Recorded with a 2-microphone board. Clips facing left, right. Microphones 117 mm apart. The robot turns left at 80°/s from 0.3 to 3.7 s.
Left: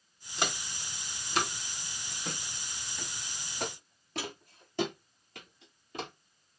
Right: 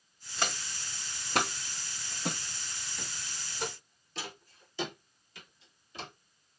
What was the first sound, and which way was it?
Footsteps, 20° left (ahead or behind).